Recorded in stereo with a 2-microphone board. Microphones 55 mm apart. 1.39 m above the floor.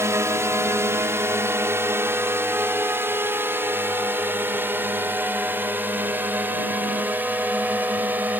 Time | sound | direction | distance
0.0 | a drone | 60° right (ahead or behind) | ?